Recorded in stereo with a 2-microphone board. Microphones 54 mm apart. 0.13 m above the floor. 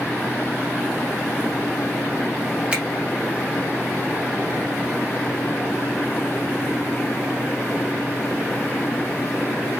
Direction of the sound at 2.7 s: 25° right (ahead or behind).